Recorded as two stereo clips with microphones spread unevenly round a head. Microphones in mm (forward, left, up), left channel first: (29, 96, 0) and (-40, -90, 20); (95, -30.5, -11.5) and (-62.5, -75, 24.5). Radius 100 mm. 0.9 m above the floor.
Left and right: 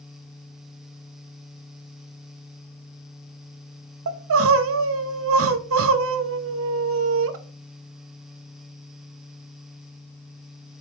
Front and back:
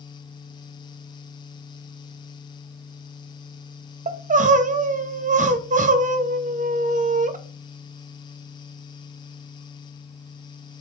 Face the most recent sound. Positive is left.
turn(degrees=-120)